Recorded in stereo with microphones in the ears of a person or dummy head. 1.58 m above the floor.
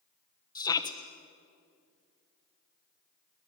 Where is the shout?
25° left (ahead or behind), 1.3 m.